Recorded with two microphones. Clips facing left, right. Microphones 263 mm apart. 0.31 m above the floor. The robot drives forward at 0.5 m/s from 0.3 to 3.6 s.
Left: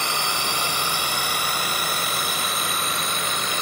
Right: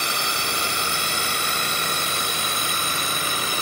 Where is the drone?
20° right (ahead or behind); by 3.6 s 35° right (ahead or behind).